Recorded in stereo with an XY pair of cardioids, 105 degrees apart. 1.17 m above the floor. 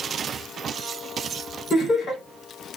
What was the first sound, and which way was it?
Laughter, 50° left.